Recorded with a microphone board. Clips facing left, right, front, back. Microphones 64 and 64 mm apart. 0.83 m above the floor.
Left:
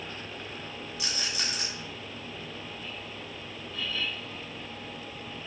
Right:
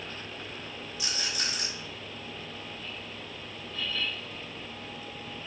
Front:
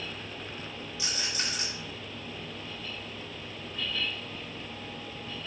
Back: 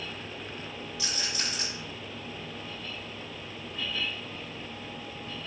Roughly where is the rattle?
Left.